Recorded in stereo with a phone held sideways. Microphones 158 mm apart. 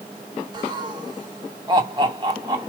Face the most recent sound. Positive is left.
turn(degrees=-30)  # may be behind; listen again after turning